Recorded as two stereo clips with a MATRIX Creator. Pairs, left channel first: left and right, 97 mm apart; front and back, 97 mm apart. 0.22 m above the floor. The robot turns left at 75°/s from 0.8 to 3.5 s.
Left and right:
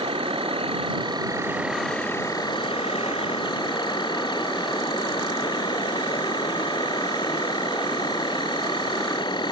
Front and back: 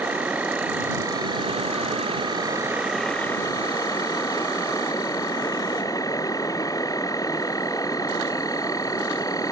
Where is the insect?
105° right; by 9.5 s 55° left.